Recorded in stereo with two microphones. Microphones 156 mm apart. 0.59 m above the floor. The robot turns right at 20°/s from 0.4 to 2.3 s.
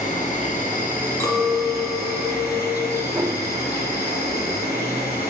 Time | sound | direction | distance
0.0 | an insect | 55° left | 1.6 m
1.2 | a clink | 15° left (ahead or behind) | 1.0 m
3.1 | a whoosh | 10° right (ahead or behind) | 1.6 m